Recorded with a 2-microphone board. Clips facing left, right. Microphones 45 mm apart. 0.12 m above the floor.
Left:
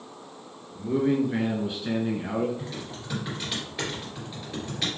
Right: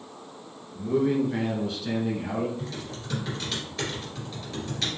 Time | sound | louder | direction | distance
0.8 | a man speaking | even | 5° left (ahead or behind) | 1.8 m
2.6 | typing on a keyboard | even | 10° left (ahead or behind) | 2.5 m